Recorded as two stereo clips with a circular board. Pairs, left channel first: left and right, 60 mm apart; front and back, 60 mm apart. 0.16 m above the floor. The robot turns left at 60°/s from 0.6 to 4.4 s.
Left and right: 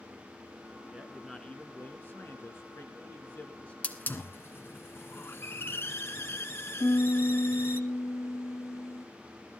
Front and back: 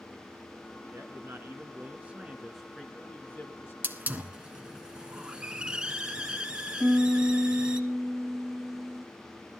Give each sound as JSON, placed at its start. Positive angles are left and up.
{"t": 0.9, "sound": "a man speaking", "azimuth_deg": -160, "distance_m": 2.5}
{"t": 3.8, "sound": "a hiss", "azimuth_deg": 145, "distance_m": 1.4}
{"t": 6.8, "sound": "a piano", "azimuth_deg": 95, "distance_m": 1.2}